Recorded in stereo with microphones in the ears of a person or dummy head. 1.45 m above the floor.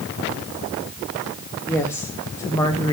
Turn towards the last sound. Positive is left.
turn(degrees=20)  # may be behind; listen again after turning